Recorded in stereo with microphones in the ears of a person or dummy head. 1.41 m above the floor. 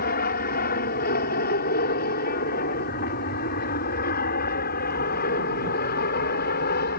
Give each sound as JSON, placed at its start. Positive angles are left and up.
{"t": 0.0, "sound": "an aircraft", "side_deg": 50}